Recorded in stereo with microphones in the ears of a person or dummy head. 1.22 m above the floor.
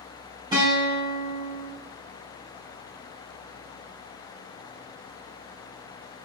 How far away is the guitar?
About 2.5 m.